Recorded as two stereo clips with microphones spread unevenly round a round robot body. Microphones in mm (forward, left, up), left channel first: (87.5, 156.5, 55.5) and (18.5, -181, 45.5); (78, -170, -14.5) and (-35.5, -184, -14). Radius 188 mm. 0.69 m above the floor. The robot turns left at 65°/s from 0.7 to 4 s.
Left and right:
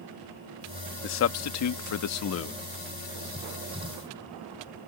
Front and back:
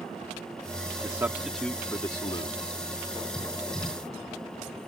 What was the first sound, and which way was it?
A man speaking, 130° left.